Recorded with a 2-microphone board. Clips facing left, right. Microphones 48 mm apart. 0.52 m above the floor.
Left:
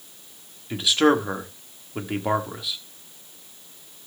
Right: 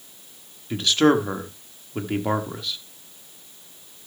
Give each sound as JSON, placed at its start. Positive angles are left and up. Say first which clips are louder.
{"t": 0.7, "sound": "a man speaking", "louder": "right 1 dB", "side_deg": 5, "distance_m": 1.3}